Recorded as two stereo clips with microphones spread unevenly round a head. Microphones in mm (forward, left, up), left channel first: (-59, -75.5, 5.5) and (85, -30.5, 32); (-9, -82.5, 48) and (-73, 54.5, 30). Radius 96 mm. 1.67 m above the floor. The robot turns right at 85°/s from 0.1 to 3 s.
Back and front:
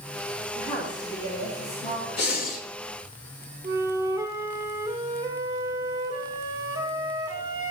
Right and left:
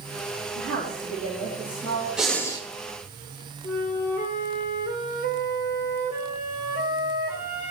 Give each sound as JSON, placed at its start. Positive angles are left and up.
{"t": 0.6, "sound": "a woman speaking", "azimuth_deg": 100, "distance_m": 3.0}
{"t": 2.2, "sound": "breathing", "azimuth_deg": -160, "distance_m": 1.9}
{"t": 3.6, "sound": "a flute", "azimuth_deg": -40, "distance_m": 2.0}